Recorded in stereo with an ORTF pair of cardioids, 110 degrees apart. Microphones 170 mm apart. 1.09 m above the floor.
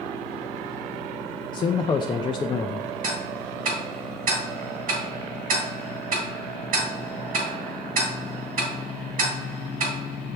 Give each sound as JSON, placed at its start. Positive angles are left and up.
{"t": 1.5, "sound": "a man speaking", "azimuth_deg": 25, "distance_m": 0.5}
{"t": 3.0, "sound": "ticking", "azimuth_deg": -60, "distance_m": 2.0}